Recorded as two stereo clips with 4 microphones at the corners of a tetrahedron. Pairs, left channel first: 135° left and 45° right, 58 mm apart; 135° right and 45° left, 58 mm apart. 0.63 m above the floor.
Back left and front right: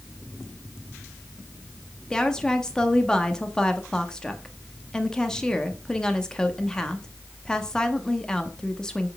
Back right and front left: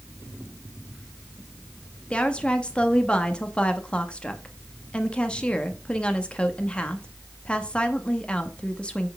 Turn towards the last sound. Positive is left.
turn(degrees=-170)